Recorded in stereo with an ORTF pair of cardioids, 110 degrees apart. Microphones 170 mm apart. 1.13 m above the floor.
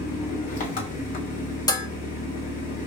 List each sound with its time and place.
0.0 s an engine running: 55° left, 1.4 m
1.7 s dishes clattering: 20° left, 0.5 m